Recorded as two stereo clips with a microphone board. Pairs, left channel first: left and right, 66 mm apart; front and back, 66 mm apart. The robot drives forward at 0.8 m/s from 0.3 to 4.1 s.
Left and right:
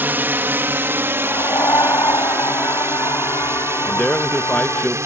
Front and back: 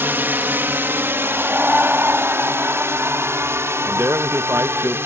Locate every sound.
0.0 s a drone: 135° right; by 5.1 s 130° right
1.2 s a scream: 110° left; by 4.9 s 125° left
3.9 s a man speaking: 140° left; by 5.0 s 155° left